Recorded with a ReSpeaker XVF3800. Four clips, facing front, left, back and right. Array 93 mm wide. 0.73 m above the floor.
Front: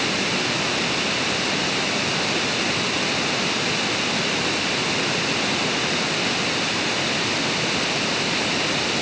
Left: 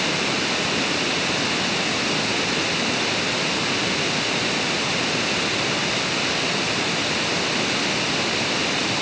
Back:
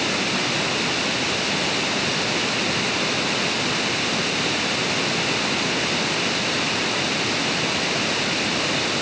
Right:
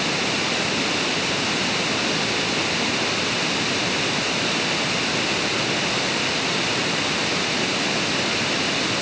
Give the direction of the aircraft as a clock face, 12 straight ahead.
I don't hear an aircraft.